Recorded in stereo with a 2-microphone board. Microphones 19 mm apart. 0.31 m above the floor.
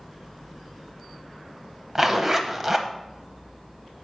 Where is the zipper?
20° right (ahead or behind), 0.8 m.